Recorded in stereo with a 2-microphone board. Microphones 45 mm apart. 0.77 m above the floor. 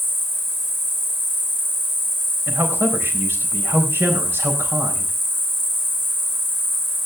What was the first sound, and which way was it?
An insect, 65° right (ahead or behind).